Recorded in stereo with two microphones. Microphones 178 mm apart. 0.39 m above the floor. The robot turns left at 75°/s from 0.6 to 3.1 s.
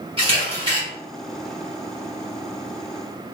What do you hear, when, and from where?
0.2 s a camera shutter: 30° right (ahead or behind), 1.4 m; by 0.8 s 25° right (ahead or behind), 1.4 m